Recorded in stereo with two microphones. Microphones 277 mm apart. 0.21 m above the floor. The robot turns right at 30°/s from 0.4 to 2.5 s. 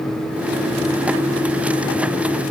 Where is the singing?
No singing in this recording.